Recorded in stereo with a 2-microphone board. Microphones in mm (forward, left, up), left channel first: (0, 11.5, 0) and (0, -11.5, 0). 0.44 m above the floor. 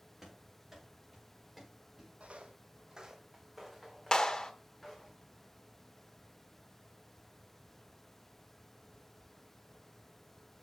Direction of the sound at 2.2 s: 70° right (ahead or behind).